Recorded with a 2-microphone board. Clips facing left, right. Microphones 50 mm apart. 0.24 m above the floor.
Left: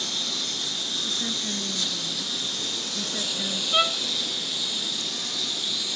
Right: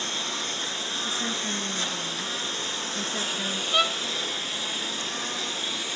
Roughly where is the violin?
Centre.